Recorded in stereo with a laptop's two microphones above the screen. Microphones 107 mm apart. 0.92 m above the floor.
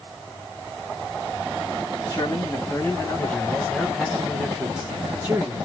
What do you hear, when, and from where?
2.1 s a man speaking: 40° left (ahead or behind), 1.7 m; by 5.7 s 35° right (ahead or behind), 1.2 m